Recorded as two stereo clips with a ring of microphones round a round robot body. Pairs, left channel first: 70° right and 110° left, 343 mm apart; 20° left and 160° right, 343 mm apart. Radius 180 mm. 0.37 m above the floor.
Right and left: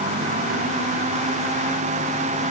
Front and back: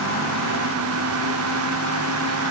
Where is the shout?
No shout in this recording.